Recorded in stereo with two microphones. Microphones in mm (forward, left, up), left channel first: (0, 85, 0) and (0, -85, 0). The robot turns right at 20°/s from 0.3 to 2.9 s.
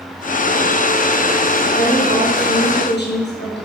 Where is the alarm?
I don't hear an alarm.